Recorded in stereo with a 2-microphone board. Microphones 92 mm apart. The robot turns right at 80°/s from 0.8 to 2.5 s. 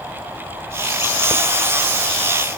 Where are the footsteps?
I don't hear footsteps.